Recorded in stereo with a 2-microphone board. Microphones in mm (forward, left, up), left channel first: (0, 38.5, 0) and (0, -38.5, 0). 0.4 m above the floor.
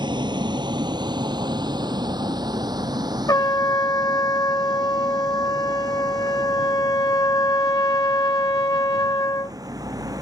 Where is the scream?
No scream in this recording.